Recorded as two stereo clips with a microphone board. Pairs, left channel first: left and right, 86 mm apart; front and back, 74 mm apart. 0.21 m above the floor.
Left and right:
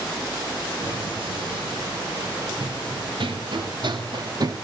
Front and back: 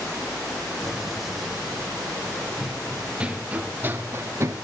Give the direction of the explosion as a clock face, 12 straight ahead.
3 o'clock.